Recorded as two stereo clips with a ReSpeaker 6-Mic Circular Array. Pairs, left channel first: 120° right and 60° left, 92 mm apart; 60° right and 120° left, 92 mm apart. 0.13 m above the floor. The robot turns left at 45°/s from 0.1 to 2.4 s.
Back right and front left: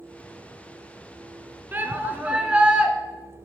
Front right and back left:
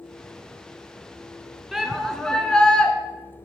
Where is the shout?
35° left, 1.4 m; by 2.9 s 5° left, 1.4 m.